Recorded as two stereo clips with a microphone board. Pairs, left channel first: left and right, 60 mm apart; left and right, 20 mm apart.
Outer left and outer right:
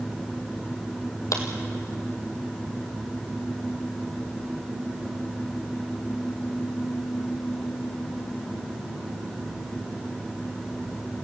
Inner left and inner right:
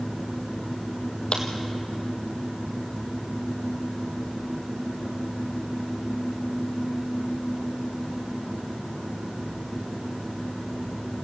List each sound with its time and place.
1.3 s a crack: 65° left (ahead or behind), 2.5 m